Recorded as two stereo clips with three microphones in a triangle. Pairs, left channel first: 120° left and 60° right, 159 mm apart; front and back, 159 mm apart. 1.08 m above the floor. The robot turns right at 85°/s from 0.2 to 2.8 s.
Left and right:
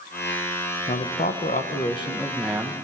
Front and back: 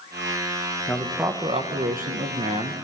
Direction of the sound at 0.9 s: 80° left.